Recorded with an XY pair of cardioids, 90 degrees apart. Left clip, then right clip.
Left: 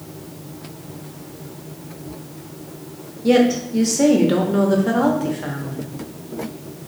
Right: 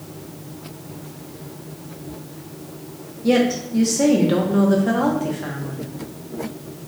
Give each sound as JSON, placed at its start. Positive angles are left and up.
{"t": 3.2, "sound": "a woman speaking", "azimuth_deg": 10, "distance_m": 0.9}